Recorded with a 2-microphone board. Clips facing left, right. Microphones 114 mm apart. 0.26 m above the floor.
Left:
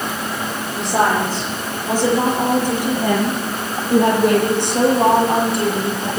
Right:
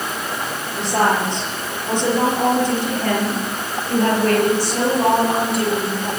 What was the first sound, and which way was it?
A woman speaking, centre (ahead or behind).